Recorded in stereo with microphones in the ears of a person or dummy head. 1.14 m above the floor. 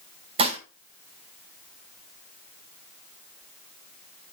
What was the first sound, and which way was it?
Dishes clattering, 25° right (ahead or behind).